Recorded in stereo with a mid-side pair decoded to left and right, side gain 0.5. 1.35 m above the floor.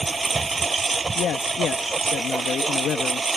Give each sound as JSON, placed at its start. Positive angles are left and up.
{"t": 0.0, "sound": "a lawn mower", "azimuth_deg": -25}
{"t": 1.1, "sound": "a man speaking", "azimuth_deg": 55}